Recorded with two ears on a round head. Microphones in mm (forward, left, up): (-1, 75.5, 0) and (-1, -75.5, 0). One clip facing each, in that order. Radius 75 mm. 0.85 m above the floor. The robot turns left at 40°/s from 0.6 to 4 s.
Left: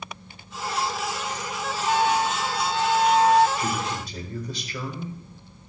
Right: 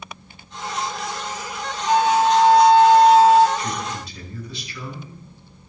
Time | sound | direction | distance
1.9 | a flute | 95° right | 0.8 m
3.6 | a man speaking | 60° left (ahead or behind) | 4 m